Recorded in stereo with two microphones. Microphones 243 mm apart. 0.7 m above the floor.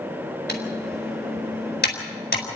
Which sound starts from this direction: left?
Typing on a keyboard, at 0.5 s.